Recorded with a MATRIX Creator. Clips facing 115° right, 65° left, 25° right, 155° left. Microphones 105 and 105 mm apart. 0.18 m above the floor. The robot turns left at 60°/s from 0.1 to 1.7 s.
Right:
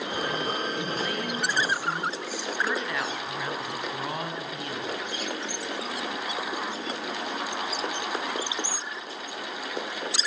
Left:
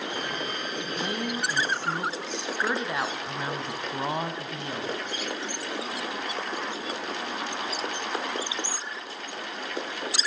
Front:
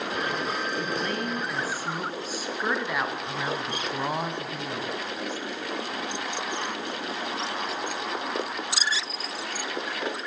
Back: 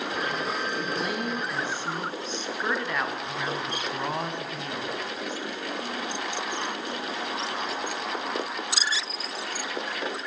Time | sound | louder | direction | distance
1.0 | a woman speaking | even, even | 95° left | 1.0 m